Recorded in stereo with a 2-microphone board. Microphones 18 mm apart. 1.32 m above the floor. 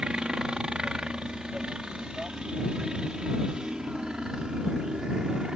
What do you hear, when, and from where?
0.0 s a helicopter: 50° right (ahead or behind)